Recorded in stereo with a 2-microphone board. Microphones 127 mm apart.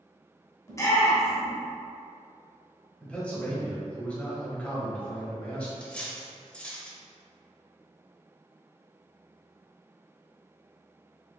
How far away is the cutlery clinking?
About 0.6 m.